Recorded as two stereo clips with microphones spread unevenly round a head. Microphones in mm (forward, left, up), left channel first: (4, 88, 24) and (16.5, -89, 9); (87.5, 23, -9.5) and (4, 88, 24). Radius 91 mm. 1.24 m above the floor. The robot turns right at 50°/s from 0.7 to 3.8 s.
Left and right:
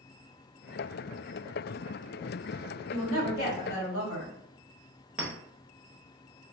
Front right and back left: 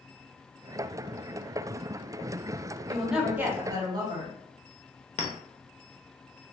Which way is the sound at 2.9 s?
40° left.